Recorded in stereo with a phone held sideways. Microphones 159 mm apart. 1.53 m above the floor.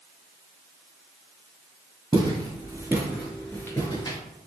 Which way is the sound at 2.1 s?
30° right (ahead or behind).